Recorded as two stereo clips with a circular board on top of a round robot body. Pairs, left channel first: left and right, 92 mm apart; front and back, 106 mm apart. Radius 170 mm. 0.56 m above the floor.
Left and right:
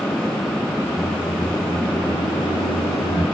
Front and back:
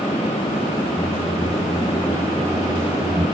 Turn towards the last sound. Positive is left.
turn(degrees=115)